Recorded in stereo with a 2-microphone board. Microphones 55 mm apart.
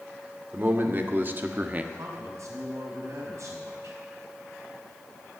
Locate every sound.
0.5 s a man speaking: 40° right (ahead or behind), 2 m; by 1.8 s 30° right (ahead or behind), 1.2 m
1.9 s a man speaking: 70° right (ahead or behind), 5 m